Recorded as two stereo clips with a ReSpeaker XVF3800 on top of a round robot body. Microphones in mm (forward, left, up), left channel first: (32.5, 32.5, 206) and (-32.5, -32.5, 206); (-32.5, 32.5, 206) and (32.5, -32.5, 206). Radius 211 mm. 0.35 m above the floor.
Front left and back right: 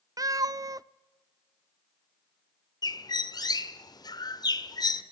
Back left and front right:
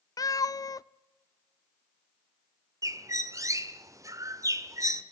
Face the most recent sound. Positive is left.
turn(degrees=5)